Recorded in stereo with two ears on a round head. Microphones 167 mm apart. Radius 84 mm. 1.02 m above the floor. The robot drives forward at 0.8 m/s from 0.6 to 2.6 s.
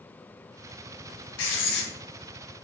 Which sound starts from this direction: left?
Writing, at 1.4 s.